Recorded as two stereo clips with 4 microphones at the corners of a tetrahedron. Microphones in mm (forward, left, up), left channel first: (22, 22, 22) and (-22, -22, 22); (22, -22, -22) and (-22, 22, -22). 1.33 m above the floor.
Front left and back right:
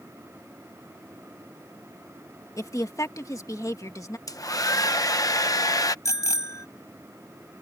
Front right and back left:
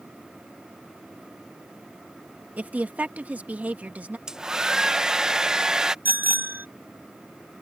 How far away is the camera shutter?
I don't hear a camera shutter.